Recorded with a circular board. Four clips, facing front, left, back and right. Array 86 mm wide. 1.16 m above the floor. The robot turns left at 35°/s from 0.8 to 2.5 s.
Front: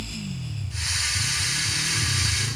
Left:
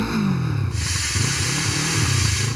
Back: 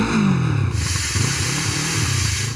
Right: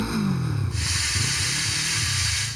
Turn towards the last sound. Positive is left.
turn(degrees=105)